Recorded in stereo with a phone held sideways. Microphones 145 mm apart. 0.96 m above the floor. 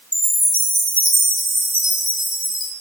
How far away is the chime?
About 3 m.